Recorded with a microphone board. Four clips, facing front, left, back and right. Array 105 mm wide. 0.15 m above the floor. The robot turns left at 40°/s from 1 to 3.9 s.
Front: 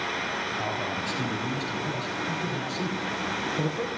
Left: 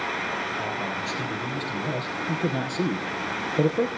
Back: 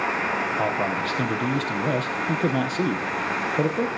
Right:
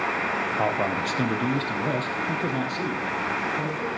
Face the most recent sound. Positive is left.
turn(degrees=120)